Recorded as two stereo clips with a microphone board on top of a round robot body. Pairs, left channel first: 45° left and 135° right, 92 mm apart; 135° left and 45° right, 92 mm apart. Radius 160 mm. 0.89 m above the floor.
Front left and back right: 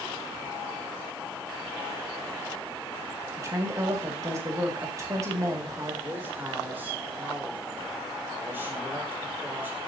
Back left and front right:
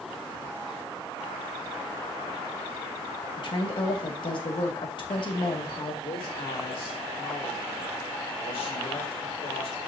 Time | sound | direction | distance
3.4 | a woman speaking | 165° left | 2 m
6.0 | a man speaking | 155° left | 4.5 m